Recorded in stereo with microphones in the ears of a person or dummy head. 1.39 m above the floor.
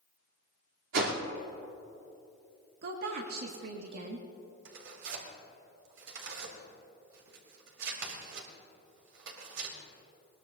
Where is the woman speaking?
50° right (ahead or behind), 1.2 m.